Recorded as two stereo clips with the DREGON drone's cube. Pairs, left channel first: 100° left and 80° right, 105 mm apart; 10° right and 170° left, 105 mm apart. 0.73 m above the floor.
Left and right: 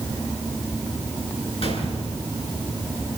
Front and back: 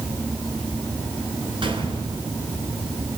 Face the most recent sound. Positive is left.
turn(degrees=130)